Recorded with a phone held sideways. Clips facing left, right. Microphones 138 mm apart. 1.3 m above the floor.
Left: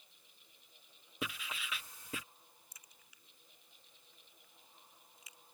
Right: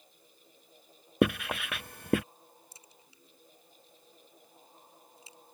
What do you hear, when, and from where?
0.0 s a fan: 40° right (ahead or behind)
1.2 s writing: 65° right (ahead or behind)
2.7 s a crack: 30° right (ahead or behind)